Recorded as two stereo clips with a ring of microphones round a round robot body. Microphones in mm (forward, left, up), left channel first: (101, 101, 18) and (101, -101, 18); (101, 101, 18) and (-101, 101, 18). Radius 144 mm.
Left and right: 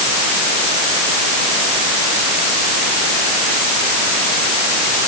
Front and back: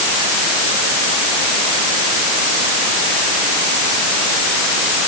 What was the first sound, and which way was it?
Only background noise.